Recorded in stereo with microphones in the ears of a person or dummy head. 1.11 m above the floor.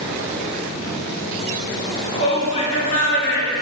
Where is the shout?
15° left (ahead or behind), 2 m; by 3.5 s 55° left (ahead or behind), 1.4 m.